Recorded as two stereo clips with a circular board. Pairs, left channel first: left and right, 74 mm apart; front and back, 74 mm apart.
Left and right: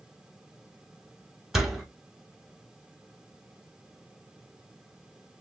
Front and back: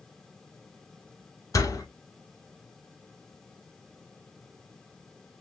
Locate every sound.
1.5 s a door slam: 5° right, 1.1 m